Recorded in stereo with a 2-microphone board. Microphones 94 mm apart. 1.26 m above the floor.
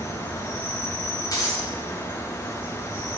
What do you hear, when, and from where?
0.0 s an insect: 30° left (ahead or behind), 1.3 m
1.3 s breaking glass: 40° left (ahead or behind), 3 m